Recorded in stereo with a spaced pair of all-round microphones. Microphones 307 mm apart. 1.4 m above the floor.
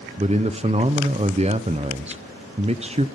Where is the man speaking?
20° right (ahead or behind), 0.7 m.